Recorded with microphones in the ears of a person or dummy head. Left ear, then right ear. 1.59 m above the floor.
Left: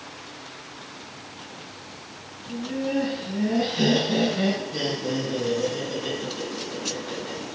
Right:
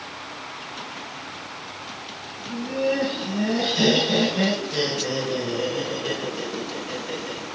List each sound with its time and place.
2.5 s laughter: 75° right (ahead or behind), 6 m; by 7.4 s 50° right (ahead or behind), 6.5 m